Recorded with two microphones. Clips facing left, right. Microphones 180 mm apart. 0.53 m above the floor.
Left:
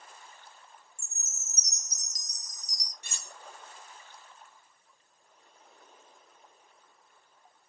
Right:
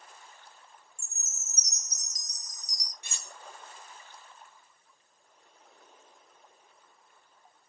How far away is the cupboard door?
No cupboard door in this recording.